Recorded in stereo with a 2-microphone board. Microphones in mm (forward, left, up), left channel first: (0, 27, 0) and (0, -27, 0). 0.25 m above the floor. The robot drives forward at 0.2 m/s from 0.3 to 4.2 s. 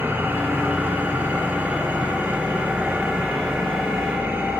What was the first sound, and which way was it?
An engine running, 35° right (ahead or behind).